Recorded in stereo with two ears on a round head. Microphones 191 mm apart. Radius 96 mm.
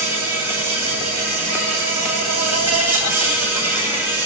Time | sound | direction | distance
0.0 | an insect | 75° right (ahead or behind) | 9.5 m